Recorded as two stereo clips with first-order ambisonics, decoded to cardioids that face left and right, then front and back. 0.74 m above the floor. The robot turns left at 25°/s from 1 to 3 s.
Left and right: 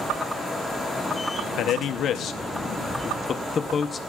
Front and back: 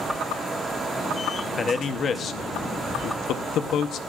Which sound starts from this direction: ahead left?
A man speaking, at 1.6 s.